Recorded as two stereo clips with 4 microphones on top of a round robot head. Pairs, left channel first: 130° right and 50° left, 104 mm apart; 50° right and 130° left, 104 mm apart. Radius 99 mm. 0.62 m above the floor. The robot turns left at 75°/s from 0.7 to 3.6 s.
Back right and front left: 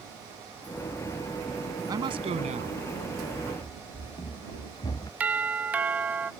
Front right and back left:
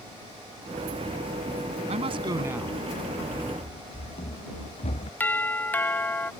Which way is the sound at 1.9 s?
105° left.